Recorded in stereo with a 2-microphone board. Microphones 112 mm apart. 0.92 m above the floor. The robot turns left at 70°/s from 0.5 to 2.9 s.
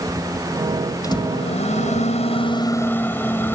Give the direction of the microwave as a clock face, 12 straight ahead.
7 o'clock.